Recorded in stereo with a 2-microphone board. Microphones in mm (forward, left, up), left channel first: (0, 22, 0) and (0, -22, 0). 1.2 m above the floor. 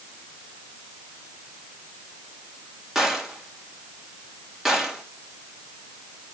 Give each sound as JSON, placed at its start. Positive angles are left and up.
{"t": 3.0, "sound": "a gunshot", "side_deg": -10, "distance_m": 2.5}